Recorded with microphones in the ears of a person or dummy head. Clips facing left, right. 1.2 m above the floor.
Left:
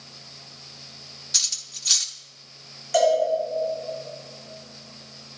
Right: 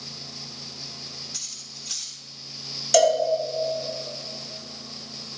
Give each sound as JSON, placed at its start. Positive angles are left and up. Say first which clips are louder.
{"t": 1.3, "sound": "cutlery clinking", "louder": "right 5 dB", "side_deg": 70, "distance_m": 1.2}
{"t": 2.9, "sound": "a cowbell", "louder": "right 1 dB", "side_deg": -55, "distance_m": 1.5}